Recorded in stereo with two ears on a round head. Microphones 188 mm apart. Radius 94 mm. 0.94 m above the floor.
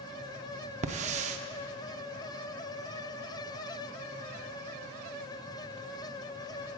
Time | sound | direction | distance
0.8 | a hiss | 35° right (ahead or behind) | 0.5 m